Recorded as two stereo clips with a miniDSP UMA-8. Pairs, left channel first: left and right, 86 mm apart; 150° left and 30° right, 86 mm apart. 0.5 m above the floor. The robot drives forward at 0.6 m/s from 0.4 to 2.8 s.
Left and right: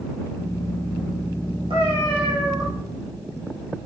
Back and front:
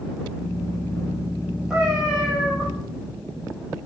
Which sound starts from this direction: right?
A cat meowing, at 1.7 s.